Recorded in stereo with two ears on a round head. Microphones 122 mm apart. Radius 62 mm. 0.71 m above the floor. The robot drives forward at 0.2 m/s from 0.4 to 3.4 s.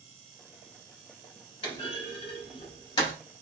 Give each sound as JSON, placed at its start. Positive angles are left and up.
{"t": 1.6, "sound": "a clunk", "side_deg": 45, "distance_m": 1.3}